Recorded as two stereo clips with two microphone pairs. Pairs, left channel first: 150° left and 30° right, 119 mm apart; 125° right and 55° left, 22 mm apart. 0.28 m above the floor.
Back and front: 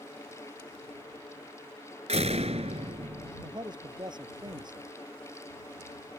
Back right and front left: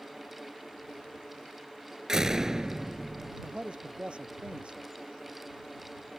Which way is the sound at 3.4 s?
20° left.